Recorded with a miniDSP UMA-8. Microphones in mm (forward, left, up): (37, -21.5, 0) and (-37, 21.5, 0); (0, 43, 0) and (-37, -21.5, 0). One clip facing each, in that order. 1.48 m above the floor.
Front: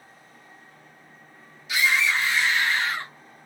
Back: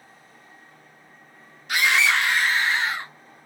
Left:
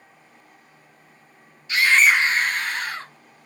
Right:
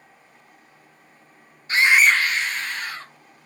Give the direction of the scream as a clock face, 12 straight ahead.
6 o'clock.